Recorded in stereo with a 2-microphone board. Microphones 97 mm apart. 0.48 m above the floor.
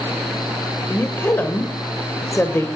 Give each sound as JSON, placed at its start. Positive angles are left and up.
{"t": 0.9, "sound": "a woman speaking", "side_deg": 25, "distance_m": 1.8}